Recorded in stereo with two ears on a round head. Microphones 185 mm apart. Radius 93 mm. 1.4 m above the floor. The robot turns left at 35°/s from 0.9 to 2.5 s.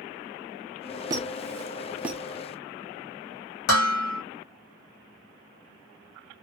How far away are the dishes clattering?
About 1.5 m.